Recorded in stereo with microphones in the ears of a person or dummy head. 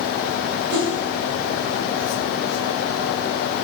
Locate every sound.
0.7 s a whoosh: 55° right (ahead or behind), 1.6 m